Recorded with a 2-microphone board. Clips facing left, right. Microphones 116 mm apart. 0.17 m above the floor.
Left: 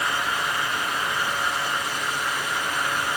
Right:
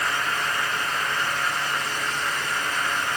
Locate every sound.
Only background noise.